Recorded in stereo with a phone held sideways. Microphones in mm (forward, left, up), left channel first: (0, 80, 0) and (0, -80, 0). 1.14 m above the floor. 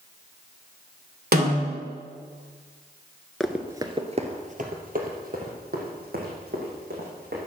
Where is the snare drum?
75° right (ahead or behind), 2.5 m.